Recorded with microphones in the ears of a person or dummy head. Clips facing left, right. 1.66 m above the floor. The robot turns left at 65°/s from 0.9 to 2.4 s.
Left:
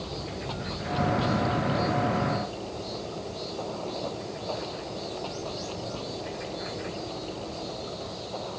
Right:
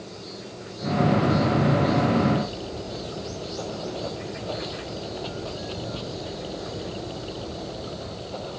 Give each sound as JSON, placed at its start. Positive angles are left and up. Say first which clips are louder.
{"t": 0.0, "sound": "running water", "louder": "left 3 dB", "azimuth_deg": 85}